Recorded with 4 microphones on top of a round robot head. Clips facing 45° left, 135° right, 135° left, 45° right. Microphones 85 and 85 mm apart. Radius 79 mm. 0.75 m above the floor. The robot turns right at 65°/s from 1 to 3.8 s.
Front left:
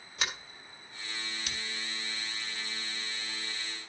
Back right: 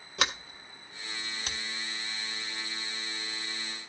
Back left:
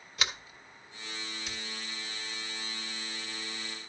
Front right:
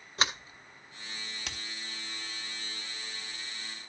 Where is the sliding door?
105° right, 1.4 m; by 1.6 s 70° right, 1.4 m.